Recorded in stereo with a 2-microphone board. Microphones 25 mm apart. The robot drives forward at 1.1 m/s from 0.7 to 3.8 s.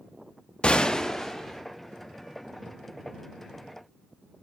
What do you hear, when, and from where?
0.6 s a gunshot: 40° left (ahead or behind), 0.5 m; by 1.6 s 15° left (ahead or behind), 1.4 m